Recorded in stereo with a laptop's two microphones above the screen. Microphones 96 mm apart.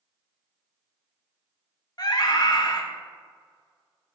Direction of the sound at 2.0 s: 45° left (ahead or behind).